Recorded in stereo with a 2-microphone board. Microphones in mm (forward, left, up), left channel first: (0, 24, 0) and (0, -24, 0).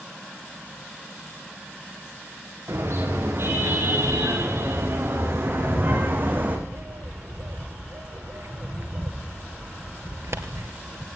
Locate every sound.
2.7 s a car horn: 60° right (ahead or behind), 9.5 m; by 6.6 s 40° right (ahead or behind), 5.5 m
5.6 s a bird: 65° right (ahead or behind), 2.5 m